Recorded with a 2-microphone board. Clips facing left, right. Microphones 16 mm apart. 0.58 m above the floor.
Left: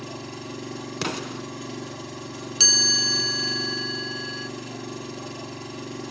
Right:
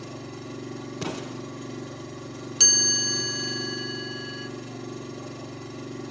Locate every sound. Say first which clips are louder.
0.0 s an engine running: left 2 dB; 50° left (ahead or behind), 1.8 m
1.0 s an explosion: left 4 dB; 80° left, 1.6 m
2.6 s a chime: left 3 dB; 10° left (ahead or behind), 1.3 m